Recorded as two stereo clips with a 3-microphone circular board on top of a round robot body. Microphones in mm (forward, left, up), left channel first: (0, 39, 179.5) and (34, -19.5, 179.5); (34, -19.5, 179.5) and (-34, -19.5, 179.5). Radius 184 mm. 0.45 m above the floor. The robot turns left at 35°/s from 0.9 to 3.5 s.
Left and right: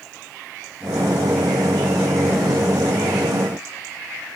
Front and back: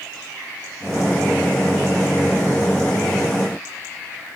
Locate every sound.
Only background noise.